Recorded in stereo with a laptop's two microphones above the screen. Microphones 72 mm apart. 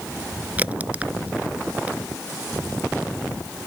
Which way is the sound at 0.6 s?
20° right (ahead or behind).